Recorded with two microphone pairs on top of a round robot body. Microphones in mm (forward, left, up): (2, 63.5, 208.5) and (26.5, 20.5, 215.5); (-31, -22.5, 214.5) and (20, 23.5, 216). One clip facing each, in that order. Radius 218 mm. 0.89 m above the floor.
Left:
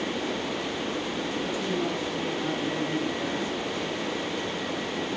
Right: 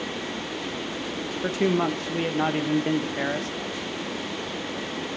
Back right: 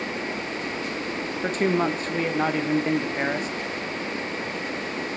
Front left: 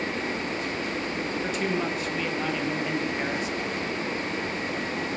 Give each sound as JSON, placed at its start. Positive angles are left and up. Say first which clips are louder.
{"t": 1.4, "sound": "a man speaking", "louder": "right 9 dB, back right 7 dB", "azimuth_deg": -85, "distance_m": 1.0}